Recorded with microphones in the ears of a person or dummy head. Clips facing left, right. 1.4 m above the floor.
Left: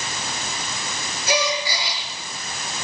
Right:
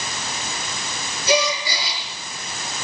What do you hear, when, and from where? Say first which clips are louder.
1.3 s a gasp: right 3 dB; 80° right, 6.5 m